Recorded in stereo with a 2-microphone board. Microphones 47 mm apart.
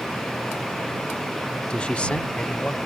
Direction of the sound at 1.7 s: 20° left (ahead or behind).